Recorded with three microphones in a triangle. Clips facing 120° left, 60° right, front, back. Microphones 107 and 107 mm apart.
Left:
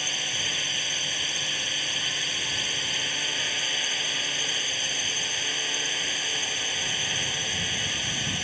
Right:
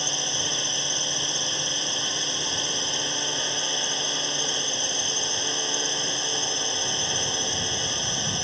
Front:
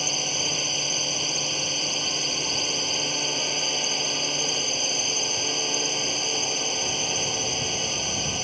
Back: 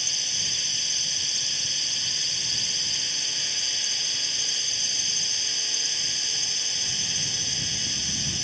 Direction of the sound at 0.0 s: Straight ahead.